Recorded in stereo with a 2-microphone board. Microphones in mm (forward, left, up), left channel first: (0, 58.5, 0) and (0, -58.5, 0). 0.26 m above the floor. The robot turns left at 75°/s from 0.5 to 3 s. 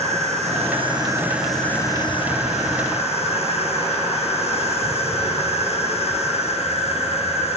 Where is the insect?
105° right, 3 m; by 7.6 s 70° left, 3 m.